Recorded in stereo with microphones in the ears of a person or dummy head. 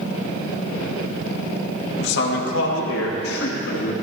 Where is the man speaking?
70° left (ahead or behind), 2.5 m; by 3.9 s 60° left (ahead or behind), 4 m.